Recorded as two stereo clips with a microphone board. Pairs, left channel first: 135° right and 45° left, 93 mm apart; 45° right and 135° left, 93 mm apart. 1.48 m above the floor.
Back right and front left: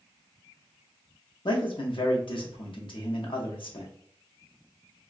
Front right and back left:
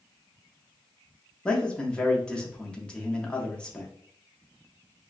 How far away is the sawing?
No sawing in this recording.